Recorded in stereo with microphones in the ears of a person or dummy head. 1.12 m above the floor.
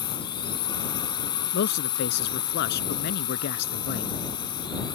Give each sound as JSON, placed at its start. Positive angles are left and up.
{"t": 0.0, "sound": "a drone", "side_deg": 20}
{"t": 1.5, "sound": "a man speaking", "side_deg": 60}